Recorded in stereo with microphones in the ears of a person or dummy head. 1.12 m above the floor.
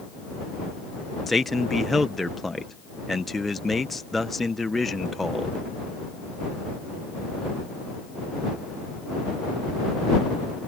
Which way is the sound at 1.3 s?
Centre (ahead or behind).